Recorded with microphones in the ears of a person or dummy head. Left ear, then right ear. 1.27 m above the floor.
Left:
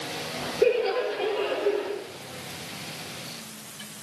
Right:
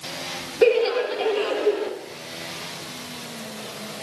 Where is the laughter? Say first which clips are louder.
Right 5 dB; 50° right (ahead or behind), 1.3 m; by 1.9 s 70° right (ahead or behind), 2.5 m.